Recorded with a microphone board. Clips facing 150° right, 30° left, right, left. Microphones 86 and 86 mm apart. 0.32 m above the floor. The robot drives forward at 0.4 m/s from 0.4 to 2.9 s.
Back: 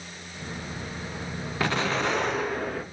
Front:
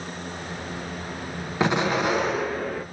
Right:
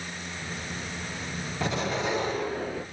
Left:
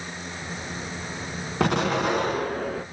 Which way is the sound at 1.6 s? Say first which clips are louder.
Front 4 dB, left 6 dB; 100° left.